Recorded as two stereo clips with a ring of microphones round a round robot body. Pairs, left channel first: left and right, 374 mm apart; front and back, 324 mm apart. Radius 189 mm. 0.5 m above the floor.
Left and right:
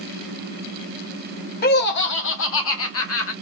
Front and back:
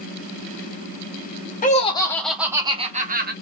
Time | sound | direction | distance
1.6 | laughter | 45° left | 0.9 m